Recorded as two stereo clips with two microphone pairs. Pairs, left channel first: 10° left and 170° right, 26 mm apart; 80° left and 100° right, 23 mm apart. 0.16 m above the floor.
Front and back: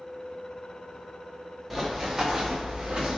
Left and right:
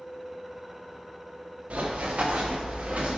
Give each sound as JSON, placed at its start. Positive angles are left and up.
{"t": 1.7, "sound": "running footsteps", "azimuth_deg": -90, "distance_m": 1.5}